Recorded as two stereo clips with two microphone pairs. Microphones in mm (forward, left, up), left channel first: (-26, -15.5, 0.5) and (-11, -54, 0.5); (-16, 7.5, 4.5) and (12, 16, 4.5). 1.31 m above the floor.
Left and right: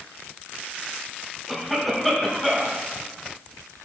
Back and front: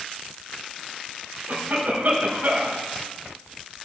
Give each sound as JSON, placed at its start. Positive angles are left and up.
{"t": 1.5, "sound": "a cough", "azimuth_deg": 25, "distance_m": 4.0}